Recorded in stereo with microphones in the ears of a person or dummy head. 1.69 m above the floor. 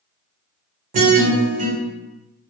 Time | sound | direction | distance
0.9 | a guitar | 40° right (ahead or behind) | 0.8 m